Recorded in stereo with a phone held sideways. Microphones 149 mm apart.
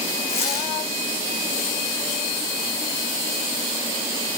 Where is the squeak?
40° left (ahead or behind), 9.5 m.